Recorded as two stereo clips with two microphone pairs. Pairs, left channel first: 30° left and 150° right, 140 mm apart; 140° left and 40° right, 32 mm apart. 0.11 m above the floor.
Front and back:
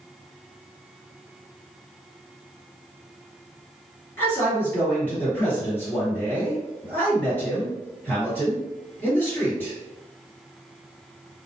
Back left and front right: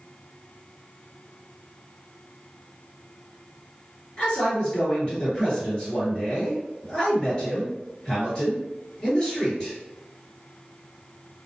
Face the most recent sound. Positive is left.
turn(degrees=95)